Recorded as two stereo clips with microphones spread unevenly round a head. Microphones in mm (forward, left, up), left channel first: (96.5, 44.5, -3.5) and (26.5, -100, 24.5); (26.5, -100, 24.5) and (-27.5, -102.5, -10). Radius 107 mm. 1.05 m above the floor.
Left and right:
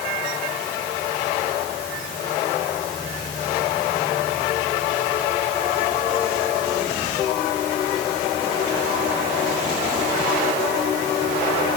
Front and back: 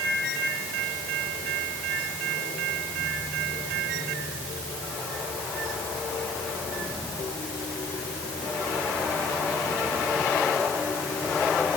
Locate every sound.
Only background noise.